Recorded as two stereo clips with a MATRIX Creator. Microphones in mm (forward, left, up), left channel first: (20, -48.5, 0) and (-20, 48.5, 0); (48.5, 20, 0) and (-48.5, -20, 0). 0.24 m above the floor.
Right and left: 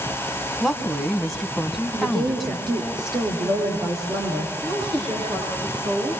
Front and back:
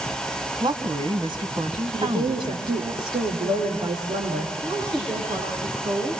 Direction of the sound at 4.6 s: 145° left.